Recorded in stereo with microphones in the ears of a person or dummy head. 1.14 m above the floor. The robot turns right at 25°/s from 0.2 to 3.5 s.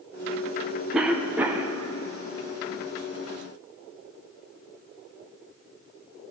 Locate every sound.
0.9 s a cough: 15° right (ahead or behind), 0.7 m; by 1.8 s 25° right (ahead or behind), 0.7 m